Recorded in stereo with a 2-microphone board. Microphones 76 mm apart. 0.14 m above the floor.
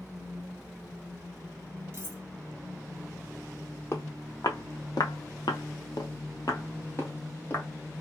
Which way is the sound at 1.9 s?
40° right (ahead or behind).